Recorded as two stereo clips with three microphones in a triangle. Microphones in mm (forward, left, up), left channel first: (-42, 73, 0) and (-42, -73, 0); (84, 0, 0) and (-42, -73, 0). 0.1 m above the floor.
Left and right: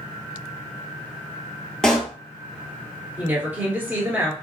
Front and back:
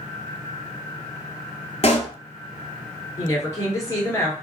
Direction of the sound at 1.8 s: 5° left.